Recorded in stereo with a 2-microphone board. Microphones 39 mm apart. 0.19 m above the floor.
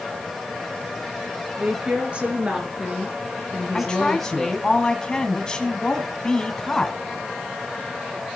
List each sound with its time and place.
1.6 s a woman speaking: 35° right (ahead or behind), 4 m; by 4.7 s 15° left (ahead or behind), 2.5 m
3.7 s a woman speaking: 20° left (ahead or behind), 1.6 m